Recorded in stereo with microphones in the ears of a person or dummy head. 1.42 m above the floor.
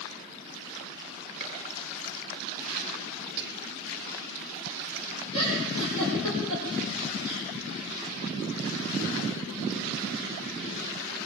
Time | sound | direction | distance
1.4 | a gunshot | 35° right (ahead or behind) | 4.5 m
3.4 | whispering | 55° right (ahead or behind) | 1.7 m
5.3 | a giggle | 80° right | 8.5 m